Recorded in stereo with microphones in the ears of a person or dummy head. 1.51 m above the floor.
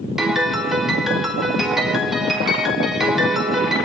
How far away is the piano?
About 3.5 m.